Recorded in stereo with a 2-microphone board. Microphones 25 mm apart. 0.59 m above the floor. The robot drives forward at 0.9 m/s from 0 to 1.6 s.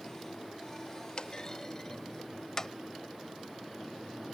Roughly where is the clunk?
Left.